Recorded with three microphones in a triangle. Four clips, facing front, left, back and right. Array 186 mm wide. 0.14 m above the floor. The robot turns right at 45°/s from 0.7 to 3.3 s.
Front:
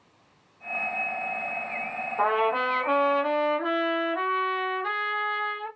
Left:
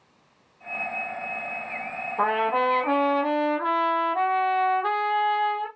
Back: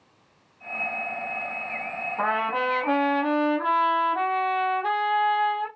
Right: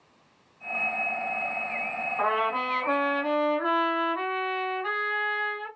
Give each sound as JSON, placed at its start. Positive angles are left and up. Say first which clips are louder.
{"t": 2.2, "sound": "a trumpet", "louder": "left 4 dB, front 2 dB", "azimuth_deg": 100, "distance_m": 3.5}